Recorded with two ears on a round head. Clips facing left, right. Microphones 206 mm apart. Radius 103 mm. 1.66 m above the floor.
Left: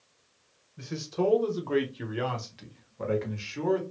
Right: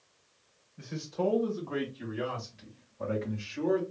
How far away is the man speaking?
About 1.4 m.